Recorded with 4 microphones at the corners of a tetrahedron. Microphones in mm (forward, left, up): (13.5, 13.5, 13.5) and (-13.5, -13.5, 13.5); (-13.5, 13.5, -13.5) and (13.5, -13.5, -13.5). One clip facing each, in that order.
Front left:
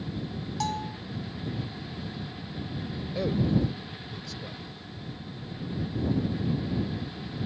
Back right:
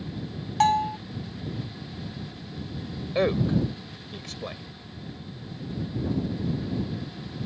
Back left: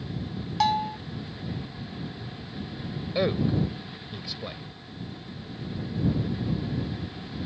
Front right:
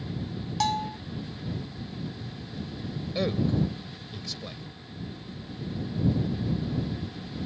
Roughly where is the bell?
Behind right.